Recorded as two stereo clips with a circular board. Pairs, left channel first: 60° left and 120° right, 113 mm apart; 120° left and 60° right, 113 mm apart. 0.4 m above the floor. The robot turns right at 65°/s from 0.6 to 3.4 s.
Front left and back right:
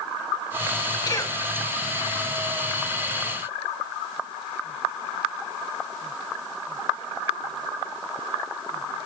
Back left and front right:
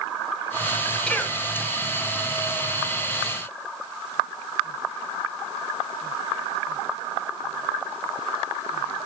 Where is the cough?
45° left, 1.6 m; by 1.4 s 65° left, 1.6 m.